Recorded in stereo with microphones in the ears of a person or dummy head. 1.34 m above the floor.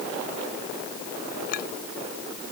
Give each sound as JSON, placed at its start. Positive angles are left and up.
{"t": 1.5, "sound": "a clink", "side_deg": 55}